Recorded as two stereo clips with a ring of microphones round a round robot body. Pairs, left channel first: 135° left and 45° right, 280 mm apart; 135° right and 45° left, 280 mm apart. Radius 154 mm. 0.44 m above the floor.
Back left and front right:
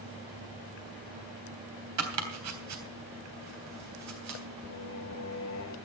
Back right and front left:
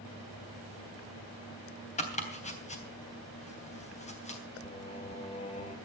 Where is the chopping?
70° right, 3 m.